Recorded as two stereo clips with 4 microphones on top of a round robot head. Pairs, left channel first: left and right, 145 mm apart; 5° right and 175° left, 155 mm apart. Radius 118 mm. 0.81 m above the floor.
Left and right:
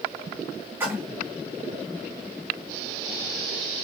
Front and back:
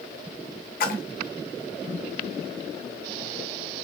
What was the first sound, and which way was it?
A splash, 15° right.